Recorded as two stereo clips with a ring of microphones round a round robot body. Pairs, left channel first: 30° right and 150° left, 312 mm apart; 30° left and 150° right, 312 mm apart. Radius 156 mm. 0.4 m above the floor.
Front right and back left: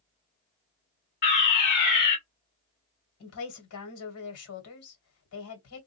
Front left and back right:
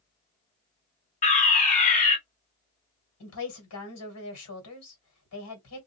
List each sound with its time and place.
1.2 s a fire alarm: 20° right, 2 m
3.2 s a woman speaking: straight ahead, 1.7 m